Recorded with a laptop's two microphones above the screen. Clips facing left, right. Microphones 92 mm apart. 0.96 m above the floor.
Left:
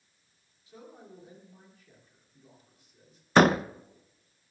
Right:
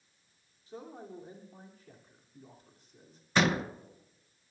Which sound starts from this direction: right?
A man speaking, at 0.7 s.